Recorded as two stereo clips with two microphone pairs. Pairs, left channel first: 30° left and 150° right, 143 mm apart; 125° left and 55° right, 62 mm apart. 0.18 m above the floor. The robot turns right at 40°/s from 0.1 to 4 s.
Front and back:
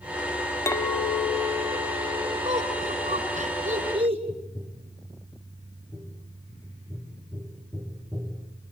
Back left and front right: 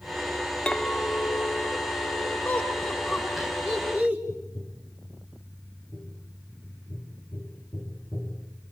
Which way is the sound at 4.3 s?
110° left.